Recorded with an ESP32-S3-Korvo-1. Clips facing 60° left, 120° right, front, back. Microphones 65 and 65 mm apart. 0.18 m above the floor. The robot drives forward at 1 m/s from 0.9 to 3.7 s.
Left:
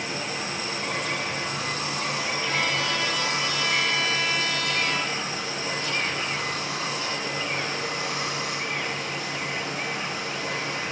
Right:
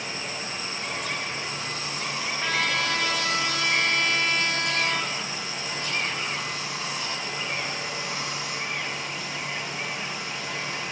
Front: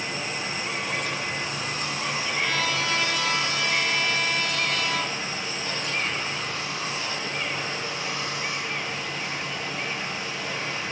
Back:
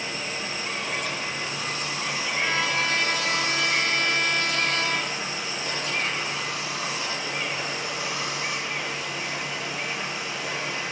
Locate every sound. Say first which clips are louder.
0.0 s running water: left 3 dB, front 1 dB; 80° left, 6 m; by 10.9 s 105° left, 6.5 m
2.4 s a trumpet: right 2 dB, back 2 dB; 125° right, 2.5 m; by 5.1 s 145° right, 3.5 m